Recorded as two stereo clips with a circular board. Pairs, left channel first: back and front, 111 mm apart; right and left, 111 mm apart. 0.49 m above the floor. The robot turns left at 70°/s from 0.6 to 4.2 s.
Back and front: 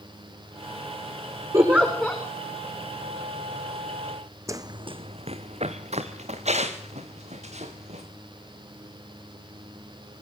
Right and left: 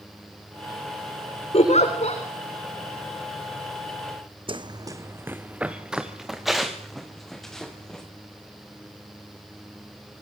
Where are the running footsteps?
60° left, 1.1 m; by 8.0 s 5° right, 5.5 m.